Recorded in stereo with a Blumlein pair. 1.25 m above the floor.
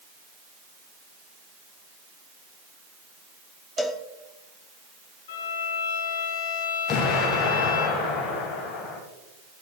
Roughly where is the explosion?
Ahead left.